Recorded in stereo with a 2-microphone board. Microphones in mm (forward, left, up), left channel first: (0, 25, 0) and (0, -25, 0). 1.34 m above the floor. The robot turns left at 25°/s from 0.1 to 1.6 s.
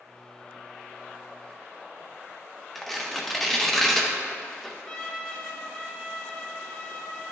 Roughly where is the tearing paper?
Centre.